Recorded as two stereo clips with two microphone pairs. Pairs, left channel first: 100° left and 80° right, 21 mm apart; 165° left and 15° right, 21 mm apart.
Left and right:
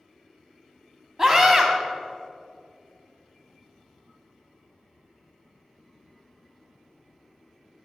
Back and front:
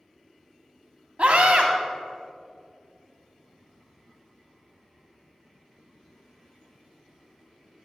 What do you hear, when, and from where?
1.2 s a scream: 20° right, 1.8 m